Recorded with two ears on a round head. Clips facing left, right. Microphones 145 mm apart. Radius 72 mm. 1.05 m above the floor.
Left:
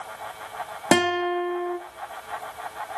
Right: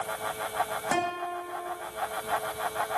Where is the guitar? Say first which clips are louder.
Left 12 dB; 80° left, 1.5 m.